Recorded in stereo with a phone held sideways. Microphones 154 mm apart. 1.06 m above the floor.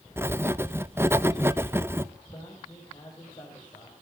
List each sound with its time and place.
0.2 s writing: 15° right (ahead or behind), 0.5 m
2.3 s a man speaking: 30° left (ahead or behind), 5.5 m